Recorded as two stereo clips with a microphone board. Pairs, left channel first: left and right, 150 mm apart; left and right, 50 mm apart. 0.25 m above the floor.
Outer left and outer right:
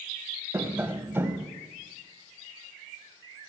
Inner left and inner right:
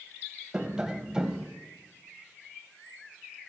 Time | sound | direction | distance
0.5 | tapping | 15° right (ahead or behind) | 0.8 m